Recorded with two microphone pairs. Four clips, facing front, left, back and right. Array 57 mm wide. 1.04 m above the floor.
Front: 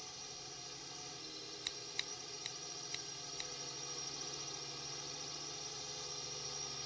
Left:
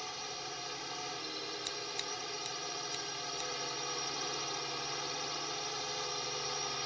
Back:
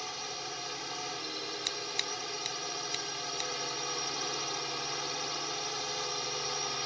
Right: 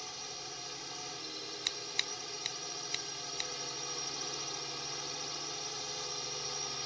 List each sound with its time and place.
0.0 s a drone: 155° left
1.6 s scissors: 110° right